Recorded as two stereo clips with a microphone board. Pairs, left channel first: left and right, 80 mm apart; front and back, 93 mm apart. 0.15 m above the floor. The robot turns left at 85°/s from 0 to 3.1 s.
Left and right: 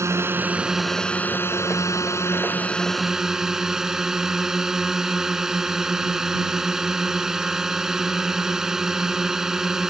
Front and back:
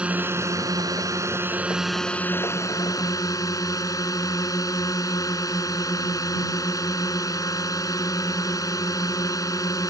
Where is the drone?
110° right; by 9.9 s 10° right.